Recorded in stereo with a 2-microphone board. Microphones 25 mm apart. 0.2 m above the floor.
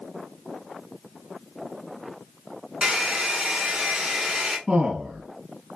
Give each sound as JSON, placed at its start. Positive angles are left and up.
{"t": 2.8, "sound": "a hair dryer", "side_deg": -45, "distance_m": 2.0}
{"t": 4.7, "sound": "a man speaking", "side_deg": -35, "distance_m": 1.7}